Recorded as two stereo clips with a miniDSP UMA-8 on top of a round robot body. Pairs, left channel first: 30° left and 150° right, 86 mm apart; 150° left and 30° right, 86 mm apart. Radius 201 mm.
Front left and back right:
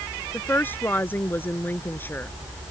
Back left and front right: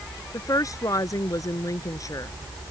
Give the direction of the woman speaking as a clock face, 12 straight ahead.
9 o'clock.